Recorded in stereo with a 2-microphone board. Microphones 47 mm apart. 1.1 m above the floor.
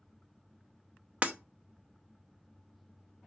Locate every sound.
1.2 s breaking glass: 35° right (ahead or behind), 0.7 m